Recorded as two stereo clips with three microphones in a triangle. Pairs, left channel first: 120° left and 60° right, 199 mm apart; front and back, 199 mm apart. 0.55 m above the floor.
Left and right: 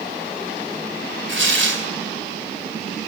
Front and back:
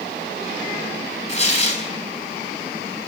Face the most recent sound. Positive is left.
turn(degrees=-55)